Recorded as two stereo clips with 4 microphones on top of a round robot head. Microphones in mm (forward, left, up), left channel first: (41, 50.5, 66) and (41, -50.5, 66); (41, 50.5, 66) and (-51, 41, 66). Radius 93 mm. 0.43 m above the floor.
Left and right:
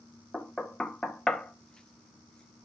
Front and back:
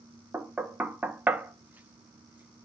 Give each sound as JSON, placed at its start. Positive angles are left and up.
{"t": 0.3, "sound": "knocking", "azimuth_deg": 155, "distance_m": 0.8}